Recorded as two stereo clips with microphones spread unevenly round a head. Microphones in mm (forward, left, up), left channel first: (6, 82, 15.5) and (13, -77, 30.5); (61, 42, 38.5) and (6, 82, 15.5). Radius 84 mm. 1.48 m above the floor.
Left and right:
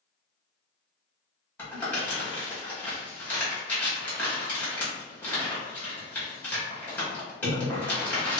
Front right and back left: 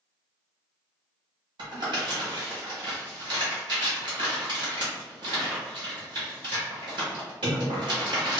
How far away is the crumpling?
About 1.2 m.